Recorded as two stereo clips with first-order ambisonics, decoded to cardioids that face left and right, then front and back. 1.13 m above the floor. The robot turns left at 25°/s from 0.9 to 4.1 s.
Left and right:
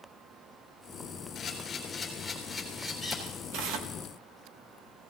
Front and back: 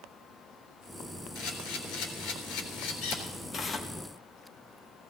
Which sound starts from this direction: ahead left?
A camera shutter, at 1.4 s.